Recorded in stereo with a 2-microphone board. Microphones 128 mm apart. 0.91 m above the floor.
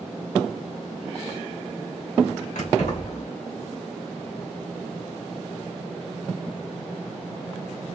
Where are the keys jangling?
80° left, 2.5 m.